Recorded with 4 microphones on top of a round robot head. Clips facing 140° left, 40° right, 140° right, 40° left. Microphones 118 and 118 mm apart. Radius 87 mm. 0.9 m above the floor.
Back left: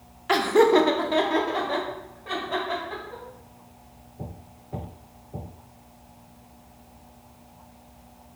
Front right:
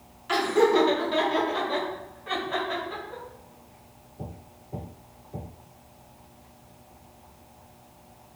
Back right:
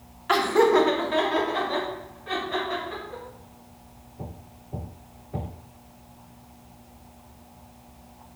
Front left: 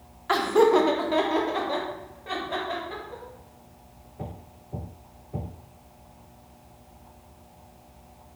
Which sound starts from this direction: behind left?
Laughter, at 0.3 s.